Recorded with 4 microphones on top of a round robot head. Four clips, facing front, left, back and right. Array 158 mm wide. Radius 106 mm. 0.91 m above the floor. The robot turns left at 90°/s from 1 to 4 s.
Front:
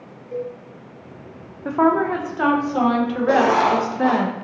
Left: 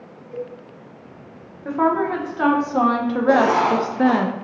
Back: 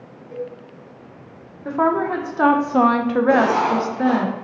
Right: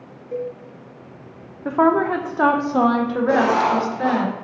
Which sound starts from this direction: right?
A cowbell, at 0.3 s.